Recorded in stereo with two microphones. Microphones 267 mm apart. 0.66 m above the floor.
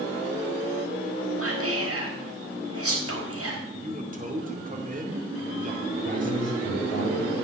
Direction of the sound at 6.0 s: 30° left (ahead or behind).